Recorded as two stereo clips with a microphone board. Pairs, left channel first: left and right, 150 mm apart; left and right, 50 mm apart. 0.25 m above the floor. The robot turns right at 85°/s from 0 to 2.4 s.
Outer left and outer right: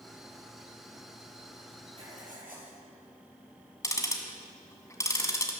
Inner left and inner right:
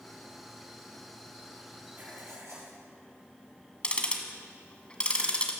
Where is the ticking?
20° left (ahead or behind), 1.9 m.